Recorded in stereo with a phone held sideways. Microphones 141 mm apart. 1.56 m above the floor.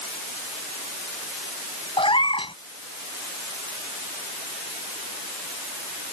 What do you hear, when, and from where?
2.0 s a cat meowing: 40° left (ahead or behind)